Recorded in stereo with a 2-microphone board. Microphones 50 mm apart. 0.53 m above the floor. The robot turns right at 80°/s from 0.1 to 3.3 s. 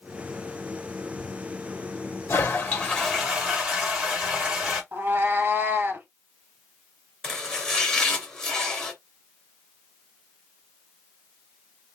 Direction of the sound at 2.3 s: 115° left.